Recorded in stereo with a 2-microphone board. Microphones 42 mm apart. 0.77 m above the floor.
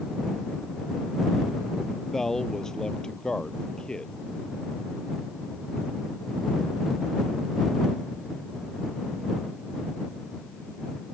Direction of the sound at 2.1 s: 10° left (ahead or behind).